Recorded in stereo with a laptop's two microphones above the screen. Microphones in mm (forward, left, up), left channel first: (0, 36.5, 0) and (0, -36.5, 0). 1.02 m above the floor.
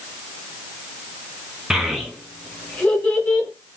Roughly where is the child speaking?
Centre.